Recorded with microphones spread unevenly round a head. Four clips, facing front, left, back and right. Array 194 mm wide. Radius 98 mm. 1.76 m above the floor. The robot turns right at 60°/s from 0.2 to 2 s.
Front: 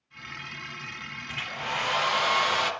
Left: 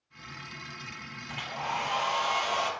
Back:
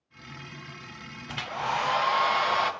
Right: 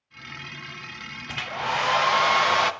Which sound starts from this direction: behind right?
A hair dryer, at 1.3 s.